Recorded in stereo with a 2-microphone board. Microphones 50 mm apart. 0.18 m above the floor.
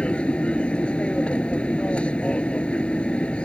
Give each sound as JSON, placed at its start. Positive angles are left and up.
{"t": 0.0, "sound": "an aircraft", "side_deg": 25}